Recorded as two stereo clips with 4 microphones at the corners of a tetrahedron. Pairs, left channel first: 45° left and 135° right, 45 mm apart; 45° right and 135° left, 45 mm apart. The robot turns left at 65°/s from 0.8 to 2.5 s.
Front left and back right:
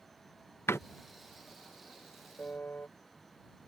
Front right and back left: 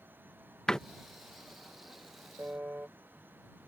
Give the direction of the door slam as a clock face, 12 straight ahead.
11 o'clock.